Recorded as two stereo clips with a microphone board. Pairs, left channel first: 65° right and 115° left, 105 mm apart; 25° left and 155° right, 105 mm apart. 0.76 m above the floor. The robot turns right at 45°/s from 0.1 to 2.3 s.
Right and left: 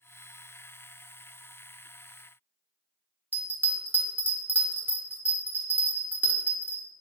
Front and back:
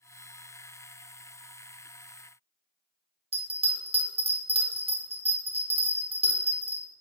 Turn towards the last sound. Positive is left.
turn(degrees=-175)